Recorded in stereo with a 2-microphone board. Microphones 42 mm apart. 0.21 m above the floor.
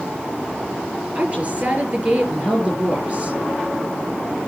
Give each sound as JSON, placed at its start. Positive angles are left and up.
{"t": 1.1, "sound": "a woman speaking", "side_deg": -30, "distance_m": 4.0}